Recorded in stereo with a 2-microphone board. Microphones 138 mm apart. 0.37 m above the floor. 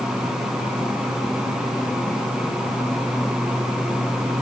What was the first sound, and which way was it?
Only background noise.